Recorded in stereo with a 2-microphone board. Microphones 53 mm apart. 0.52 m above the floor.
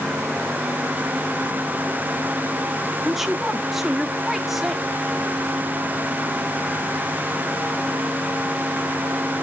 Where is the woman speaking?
5° right (ahead or behind), 0.8 m.